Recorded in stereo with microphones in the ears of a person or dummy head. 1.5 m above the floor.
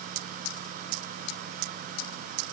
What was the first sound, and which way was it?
Only background noise.